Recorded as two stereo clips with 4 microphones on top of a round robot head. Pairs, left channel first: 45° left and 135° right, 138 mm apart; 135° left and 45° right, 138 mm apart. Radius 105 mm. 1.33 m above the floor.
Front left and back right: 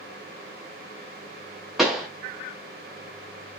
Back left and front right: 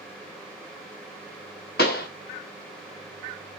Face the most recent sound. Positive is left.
turn(degrees=135)